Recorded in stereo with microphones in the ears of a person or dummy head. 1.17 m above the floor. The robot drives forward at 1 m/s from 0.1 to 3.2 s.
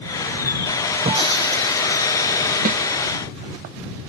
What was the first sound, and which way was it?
Breaking glass, 30° right (ahead or behind).